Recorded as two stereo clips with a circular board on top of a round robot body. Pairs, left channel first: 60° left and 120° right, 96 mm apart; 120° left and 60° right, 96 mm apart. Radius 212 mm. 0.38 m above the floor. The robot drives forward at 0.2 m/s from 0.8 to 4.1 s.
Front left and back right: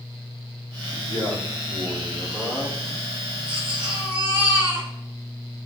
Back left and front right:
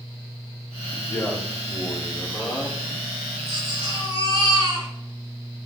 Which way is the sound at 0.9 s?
165° right.